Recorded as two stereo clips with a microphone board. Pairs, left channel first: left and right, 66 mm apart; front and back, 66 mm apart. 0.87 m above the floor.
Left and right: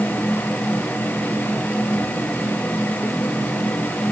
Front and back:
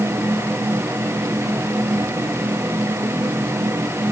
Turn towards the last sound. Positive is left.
No sound to turn to.